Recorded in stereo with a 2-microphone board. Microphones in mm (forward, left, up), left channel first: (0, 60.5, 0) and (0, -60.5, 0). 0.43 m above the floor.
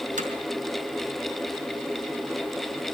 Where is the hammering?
80° right, 4.5 m.